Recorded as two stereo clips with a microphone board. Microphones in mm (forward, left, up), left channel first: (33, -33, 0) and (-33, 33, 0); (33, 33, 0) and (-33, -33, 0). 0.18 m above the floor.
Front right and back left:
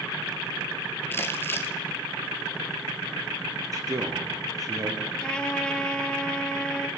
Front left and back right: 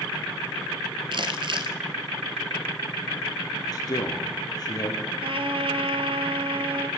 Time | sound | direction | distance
1.1 | crumpling | 110° right | 1.2 m
3.7 | a man speaking | 90° left | 4 m
5.2 | a trumpet | 125° right | 1.0 m